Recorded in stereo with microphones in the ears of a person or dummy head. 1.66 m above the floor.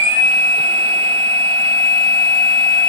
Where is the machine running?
30° right (ahead or behind), 4 m.